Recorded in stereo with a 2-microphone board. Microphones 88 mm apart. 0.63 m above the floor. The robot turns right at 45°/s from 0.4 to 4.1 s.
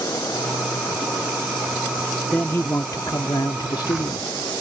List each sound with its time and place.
2.3 s a man speaking: 25° left; by 4.3 s 105° left